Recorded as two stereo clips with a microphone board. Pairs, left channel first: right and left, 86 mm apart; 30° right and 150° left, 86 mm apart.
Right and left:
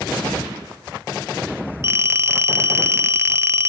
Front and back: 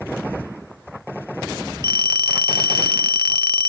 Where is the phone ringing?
145° left.